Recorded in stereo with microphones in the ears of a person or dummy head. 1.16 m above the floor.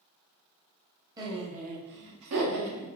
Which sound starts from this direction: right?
Laughter, at 1.2 s.